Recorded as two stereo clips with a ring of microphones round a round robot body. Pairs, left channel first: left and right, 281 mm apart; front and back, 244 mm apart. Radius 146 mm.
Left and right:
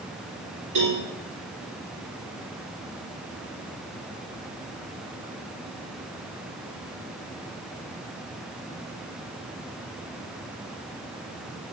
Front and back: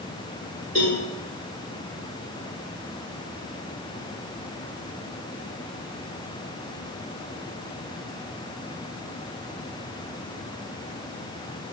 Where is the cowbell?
115° right, 2.5 m.